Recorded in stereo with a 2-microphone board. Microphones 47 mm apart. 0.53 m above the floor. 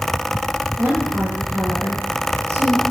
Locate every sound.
0.8 s a woman speaking: 85° right, 8.5 m